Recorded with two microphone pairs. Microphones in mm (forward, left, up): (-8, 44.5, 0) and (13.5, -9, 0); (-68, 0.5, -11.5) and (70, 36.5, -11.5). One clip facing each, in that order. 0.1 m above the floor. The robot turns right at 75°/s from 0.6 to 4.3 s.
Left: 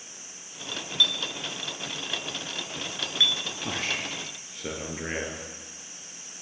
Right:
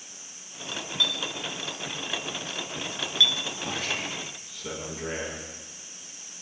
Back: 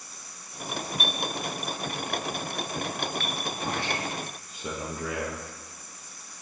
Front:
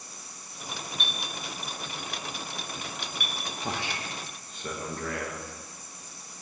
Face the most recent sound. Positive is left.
turn(degrees=120)